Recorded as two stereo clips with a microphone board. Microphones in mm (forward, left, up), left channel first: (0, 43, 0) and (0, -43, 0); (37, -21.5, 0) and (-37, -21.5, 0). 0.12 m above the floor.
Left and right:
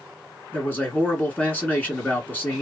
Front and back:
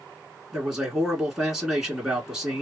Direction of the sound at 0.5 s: 105° left.